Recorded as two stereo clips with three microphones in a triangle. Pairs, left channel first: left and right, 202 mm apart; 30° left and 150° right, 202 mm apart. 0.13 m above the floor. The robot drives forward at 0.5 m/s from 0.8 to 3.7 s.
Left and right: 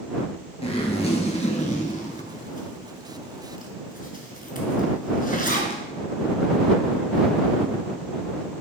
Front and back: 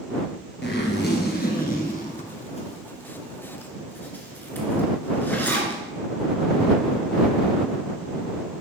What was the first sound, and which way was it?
A zipper, 35° left.